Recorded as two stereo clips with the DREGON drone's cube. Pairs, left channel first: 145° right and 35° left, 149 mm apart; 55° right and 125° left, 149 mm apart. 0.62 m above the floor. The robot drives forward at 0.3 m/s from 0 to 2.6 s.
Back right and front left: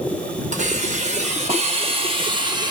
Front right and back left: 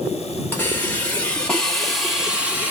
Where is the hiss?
20° left, 1.1 m; by 2.7 s 55° left, 0.7 m.